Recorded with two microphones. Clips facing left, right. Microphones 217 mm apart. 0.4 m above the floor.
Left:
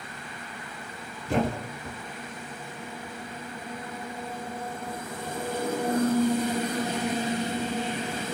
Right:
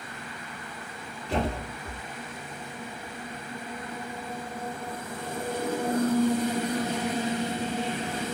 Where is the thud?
50° left (ahead or behind), 1.4 m.